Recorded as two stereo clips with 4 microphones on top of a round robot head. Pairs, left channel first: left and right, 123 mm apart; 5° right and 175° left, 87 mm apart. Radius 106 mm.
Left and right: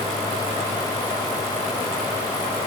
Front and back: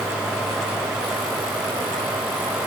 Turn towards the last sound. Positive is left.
No sound to turn to.